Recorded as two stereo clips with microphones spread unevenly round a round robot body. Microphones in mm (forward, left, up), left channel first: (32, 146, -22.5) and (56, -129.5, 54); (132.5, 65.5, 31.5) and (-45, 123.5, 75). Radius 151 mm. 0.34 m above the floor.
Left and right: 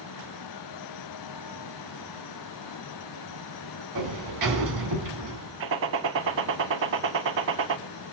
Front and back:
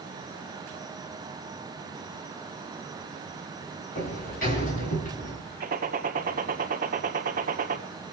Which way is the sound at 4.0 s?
65° right.